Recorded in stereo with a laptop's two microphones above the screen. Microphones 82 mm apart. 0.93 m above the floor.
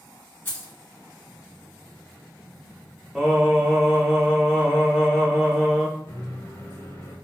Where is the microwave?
45° left (ahead or behind), 1.5 m.